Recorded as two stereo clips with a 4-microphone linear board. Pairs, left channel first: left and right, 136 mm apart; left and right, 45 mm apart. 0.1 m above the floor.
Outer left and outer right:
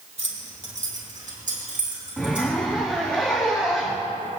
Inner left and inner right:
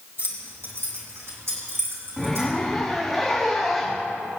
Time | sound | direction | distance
0.2 | keys jangling | 55° right (ahead or behind) | 2.0 m
2.2 | a zipper | 5° left (ahead or behind) | 2 m